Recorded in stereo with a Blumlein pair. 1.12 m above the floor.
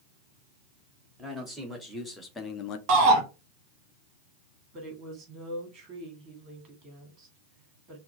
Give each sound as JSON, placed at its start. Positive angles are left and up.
{"t": 1.2, "sound": "a man speaking", "azimuth_deg": 0, "distance_m": 2.5}
{"t": 2.9, "sound": "a shout", "azimuth_deg": -40, "distance_m": 1.3}
{"t": 4.7, "sound": "a woman speaking", "azimuth_deg": -25, "distance_m": 1.9}